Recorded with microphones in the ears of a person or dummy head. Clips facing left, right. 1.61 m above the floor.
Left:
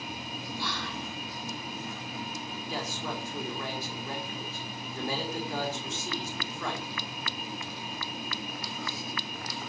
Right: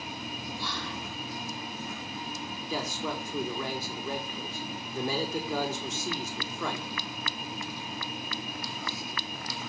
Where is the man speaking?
85° right, 5.5 m.